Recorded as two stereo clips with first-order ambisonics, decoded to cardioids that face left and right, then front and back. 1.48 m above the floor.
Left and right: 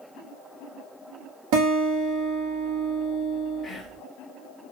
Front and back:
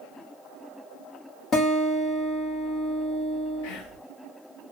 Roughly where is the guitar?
Ahead right.